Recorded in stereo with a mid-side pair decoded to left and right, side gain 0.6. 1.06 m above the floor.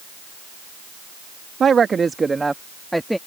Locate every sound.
1.6 s a woman speaking: 35° right; by 3.2 s straight ahead